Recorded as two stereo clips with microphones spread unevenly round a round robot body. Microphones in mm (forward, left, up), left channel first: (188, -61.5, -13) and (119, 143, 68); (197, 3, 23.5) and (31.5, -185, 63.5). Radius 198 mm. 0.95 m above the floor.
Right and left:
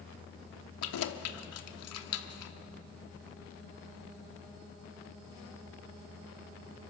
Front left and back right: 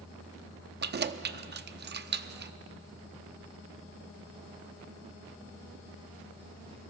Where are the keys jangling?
80° right, 1.0 m.